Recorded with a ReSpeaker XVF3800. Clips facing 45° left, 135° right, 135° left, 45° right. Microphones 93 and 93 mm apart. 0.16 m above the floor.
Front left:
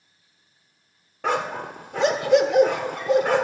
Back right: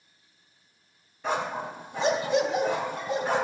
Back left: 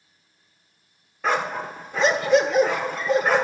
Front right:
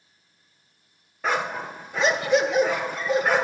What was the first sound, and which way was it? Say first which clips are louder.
A dog barking: front left 4 dB, back left 2 dB; 45° left.